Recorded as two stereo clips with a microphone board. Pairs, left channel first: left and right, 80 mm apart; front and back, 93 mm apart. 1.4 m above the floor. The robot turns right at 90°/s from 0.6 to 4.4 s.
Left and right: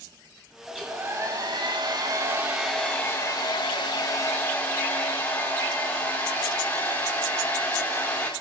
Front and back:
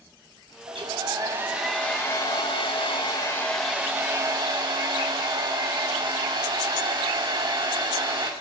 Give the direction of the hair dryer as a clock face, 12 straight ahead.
6 o'clock.